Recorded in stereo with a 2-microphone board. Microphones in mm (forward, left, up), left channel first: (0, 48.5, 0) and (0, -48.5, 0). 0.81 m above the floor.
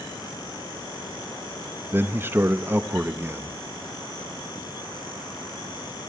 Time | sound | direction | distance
1.9 | a man speaking | 25° right (ahead or behind) | 1.0 m